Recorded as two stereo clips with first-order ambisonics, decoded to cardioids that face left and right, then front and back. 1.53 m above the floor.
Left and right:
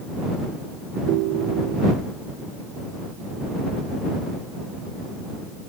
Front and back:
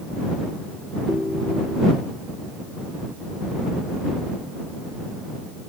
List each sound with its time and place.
1.1 s a ringtone: 85° right